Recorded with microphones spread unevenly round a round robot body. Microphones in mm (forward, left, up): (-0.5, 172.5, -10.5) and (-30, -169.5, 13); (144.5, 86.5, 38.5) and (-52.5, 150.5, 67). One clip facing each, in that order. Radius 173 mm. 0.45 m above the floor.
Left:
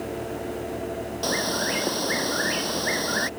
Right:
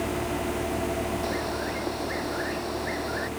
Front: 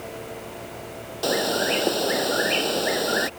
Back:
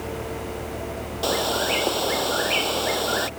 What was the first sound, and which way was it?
A bird, 50° left.